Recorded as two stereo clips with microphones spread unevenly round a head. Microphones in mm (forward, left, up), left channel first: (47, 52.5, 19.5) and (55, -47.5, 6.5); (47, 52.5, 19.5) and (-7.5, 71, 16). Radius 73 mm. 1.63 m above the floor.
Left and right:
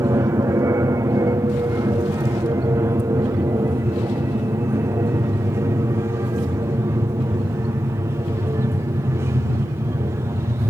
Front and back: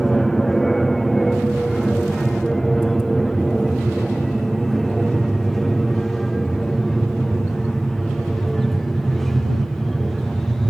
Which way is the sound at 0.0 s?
105° right.